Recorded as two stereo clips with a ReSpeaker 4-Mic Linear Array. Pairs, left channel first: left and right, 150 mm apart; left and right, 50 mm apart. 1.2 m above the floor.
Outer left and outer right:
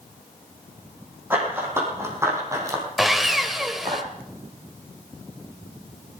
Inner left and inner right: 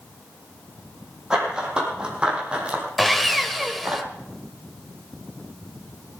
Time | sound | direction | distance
1.3 | running footsteps | 15° right (ahead or behind) | 4 m
3.0 | sawing | centre (ahead or behind) | 1.0 m